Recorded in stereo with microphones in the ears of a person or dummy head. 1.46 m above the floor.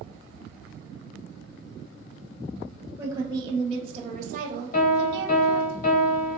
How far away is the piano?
About 0.9 m.